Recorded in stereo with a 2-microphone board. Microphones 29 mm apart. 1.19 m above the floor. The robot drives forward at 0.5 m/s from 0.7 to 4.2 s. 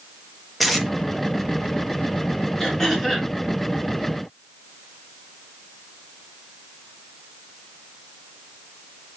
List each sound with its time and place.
0.6 s tape being pulled: centre (ahead or behind), 1.5 m
2.6 s throat clearing: 15° left (ahead or behind), 3.5 m